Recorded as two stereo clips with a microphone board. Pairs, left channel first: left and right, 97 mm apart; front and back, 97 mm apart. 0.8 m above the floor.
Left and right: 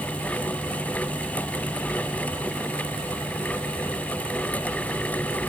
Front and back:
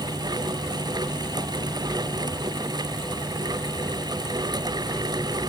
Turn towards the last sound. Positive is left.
No sound to turn to.